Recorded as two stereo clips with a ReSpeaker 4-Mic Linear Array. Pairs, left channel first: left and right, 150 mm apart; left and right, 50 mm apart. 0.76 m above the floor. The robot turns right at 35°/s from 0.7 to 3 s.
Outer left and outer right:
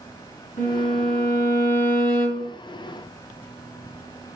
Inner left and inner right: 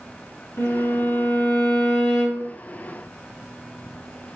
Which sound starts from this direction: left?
A violin, at 0.6 s.